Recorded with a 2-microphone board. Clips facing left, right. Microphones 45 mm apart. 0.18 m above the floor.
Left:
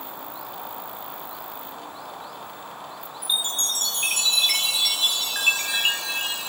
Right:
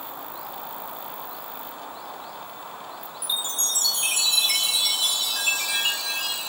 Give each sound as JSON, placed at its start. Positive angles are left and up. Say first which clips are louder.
{"t": 3.2, "sound": "a chime", "louder": "left 3 dB", "side_deg": 40, "distance_m": 1.8}